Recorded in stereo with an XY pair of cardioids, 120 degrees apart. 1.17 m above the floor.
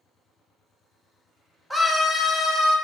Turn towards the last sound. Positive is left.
turn(degrees=60)